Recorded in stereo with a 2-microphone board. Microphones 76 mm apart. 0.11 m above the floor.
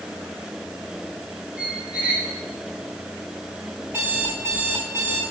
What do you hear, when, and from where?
1.6 s a squeak: 15° right (ahead or behind), 2.5 m
3.9 s an alarm clock: 30° right (ahead or behind), 4 m